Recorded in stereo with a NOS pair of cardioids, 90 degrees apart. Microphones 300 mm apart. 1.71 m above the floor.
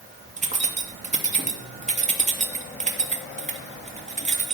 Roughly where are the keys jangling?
Ahead right.